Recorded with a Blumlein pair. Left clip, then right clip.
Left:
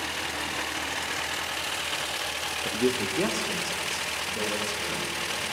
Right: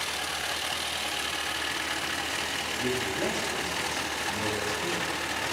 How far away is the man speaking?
About 0.6 m.